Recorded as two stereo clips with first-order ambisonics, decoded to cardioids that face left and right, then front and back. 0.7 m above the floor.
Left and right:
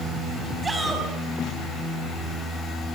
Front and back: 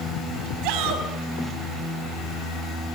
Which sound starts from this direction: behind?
A shout, at 0.6 s.